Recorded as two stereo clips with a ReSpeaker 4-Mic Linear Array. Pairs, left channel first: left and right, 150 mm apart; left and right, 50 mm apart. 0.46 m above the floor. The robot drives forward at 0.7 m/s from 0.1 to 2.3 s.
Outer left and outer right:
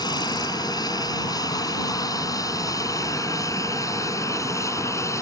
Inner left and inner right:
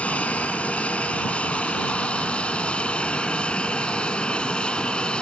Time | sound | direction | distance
0.0 | an aircraft | 25° left (ahead or behind) | ?